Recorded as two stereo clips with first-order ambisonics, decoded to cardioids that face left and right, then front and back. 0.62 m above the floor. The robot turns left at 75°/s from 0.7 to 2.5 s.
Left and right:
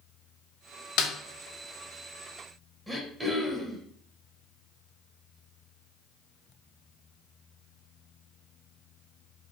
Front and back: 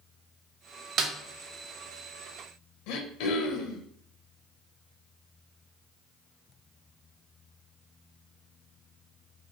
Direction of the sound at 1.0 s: 125° left.